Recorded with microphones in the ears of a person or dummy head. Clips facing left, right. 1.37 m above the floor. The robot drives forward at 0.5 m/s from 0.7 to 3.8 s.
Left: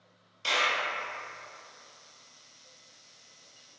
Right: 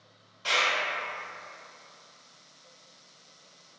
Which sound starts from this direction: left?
A clap, at 0.4 s.